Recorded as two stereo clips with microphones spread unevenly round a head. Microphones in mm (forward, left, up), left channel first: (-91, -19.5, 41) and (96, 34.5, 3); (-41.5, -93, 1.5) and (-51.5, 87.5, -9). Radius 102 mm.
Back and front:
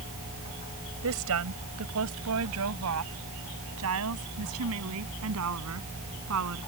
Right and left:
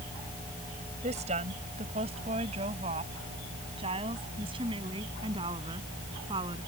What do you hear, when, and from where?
1.0 s a woman speaking: 30° left; by 6.6 s 25° left